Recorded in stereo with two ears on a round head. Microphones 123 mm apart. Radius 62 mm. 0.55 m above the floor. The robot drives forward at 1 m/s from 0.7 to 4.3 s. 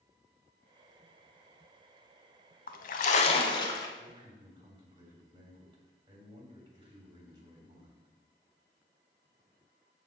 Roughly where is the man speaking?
Right.